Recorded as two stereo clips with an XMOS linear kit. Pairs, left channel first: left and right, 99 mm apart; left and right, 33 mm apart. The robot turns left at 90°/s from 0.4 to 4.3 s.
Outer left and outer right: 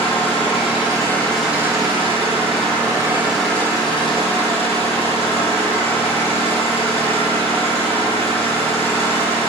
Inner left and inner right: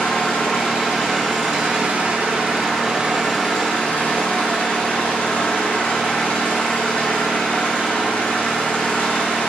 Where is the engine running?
90° left, 6.5 m; by 9.5 s 100° left, 6.5 m.